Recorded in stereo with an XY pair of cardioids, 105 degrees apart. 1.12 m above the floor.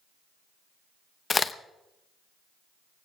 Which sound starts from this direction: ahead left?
A crack, at 1.3 s.